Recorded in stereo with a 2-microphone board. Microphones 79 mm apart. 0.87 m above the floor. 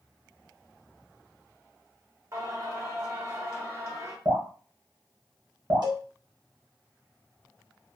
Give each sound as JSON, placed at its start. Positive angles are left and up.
{"t": 2.3, "sound": "singing", "side_deg": -40, "distance_m": 1.0}
{"t": 4.2, "sound": "dripping", "side_deg": -55, "distance_m": 1.4}
{"t": 5.8, "sound": "a cowbell", "side_deg": -60, "distance_m": 0.9}